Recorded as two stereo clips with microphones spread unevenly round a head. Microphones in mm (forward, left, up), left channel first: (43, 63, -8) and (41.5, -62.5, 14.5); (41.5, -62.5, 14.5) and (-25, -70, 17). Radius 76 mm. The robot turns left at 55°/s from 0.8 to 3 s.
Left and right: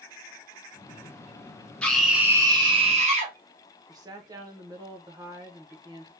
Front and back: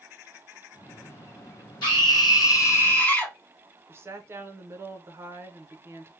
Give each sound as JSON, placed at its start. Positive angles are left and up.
{"t": 1.8, "sound": "a scream", "azimuth_deg": 10, "distance_m": 1.6}
{"t": 3.9, "sound": "a woman speaking", "azimuth_deg": -150, "distance_m": 0.6}